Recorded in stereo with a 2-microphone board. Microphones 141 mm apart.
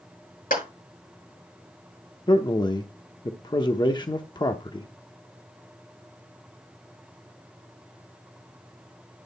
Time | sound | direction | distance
0.5 | a clap | 80° left | 8.5 m
2.3 | a man speaking | 30° left (ahead or behind) | 0.8 m